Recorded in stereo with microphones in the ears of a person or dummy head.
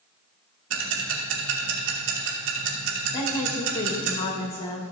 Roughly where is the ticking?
Right.